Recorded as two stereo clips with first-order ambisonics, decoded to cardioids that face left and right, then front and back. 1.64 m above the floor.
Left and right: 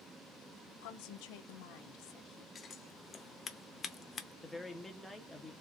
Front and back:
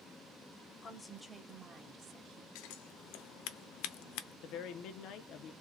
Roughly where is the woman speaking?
Left.